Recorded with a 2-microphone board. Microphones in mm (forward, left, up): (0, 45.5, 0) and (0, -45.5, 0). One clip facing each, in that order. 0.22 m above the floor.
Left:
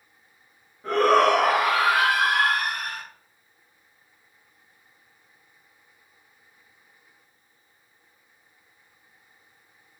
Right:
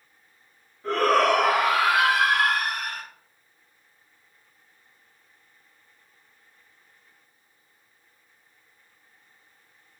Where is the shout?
15° left (ahead or behind), 1.0 m; by 3.0 s 55° left (ahead or behind), 1.7 m.